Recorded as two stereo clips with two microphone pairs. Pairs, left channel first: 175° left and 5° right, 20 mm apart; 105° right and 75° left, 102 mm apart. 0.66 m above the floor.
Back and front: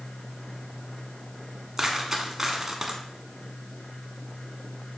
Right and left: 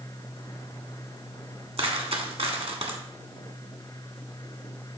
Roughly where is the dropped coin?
Left.